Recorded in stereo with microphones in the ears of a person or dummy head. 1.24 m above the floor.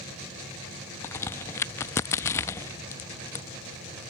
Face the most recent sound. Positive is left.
turn(degrees=15)  # may be behind; listen again after turning